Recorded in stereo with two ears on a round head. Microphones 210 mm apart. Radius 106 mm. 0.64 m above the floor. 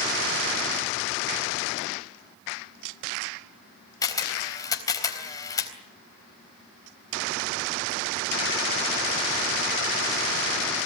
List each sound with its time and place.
4.0 s a camera shutter: 15° left (ahead or behind), 4 m